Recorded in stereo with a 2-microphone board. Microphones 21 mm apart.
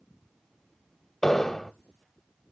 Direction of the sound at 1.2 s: 20° left (ahead or behind).